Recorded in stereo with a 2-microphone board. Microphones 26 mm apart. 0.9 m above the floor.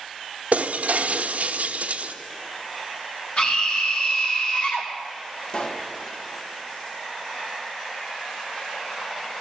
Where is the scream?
55° left (ahead or behind), 1.7 m.